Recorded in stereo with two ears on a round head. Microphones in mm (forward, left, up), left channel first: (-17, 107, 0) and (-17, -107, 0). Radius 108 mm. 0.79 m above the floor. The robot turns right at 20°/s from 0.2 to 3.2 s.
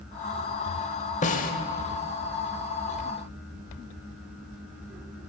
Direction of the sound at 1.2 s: 30° left (ahead or behind).